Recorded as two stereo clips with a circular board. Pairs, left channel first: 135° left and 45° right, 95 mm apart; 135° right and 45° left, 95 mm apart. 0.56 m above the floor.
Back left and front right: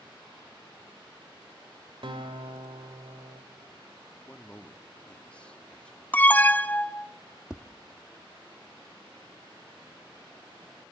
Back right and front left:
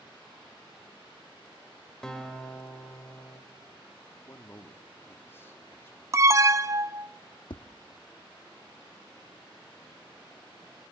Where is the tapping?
125° right, 0.8 m.